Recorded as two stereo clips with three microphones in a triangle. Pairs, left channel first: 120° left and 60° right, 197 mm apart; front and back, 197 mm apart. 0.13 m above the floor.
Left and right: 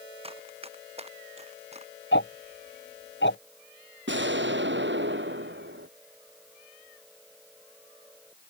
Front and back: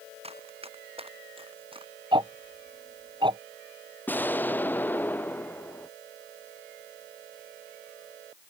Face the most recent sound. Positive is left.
turn(degrees=-80)